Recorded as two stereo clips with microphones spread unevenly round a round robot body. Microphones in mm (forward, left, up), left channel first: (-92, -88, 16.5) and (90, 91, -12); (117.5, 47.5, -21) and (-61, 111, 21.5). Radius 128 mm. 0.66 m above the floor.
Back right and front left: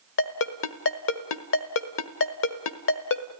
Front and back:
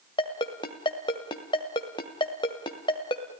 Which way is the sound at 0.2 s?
90° right.